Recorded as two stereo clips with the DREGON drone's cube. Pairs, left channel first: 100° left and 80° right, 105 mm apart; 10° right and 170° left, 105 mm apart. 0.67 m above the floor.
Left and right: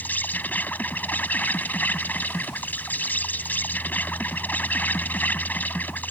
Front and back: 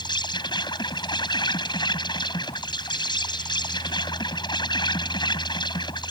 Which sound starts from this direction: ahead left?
An insect, at 0.0 s.